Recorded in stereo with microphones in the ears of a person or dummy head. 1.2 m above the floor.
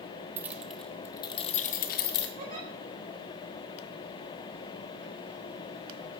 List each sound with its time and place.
0.4 s keys jangling: 10° right (ahead or behind), 0.8 m; by 2.3 s 60° left (ahead or behind), 1.0 m
2.4 s a giggle: 45° right (ahead or behind), 3 m